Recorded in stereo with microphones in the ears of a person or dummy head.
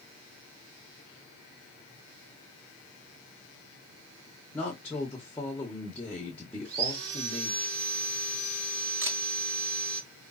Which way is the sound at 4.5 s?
10° left (ahead or behind).